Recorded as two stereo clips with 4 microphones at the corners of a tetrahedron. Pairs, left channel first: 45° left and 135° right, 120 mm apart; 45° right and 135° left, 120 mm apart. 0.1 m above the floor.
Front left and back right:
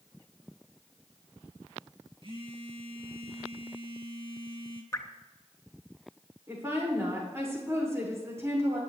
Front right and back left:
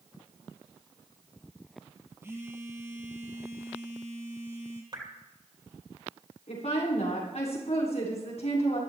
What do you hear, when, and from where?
2.2 s a phone buzzing: 160° right, 2.5 m
4.9 s dripping: 100° left, 2.5 m
6.5 s a woman speaking: 65° right, 8 m